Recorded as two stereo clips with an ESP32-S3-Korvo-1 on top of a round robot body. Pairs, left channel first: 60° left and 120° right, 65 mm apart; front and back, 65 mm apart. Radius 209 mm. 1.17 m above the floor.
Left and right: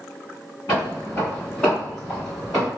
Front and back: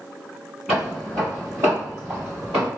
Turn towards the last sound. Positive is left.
turn(degrees=155)